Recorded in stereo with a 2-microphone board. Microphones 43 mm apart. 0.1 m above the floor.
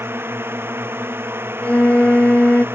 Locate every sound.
0.0 s a drone: 80° right
1.6 s a flute: 35° left (ahead or behind)